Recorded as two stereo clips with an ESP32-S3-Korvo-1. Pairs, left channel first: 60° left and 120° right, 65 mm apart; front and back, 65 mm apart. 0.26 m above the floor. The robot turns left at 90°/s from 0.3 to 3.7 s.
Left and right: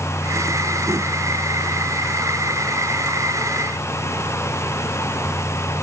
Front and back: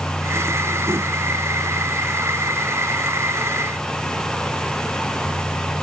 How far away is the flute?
No flute in this recording.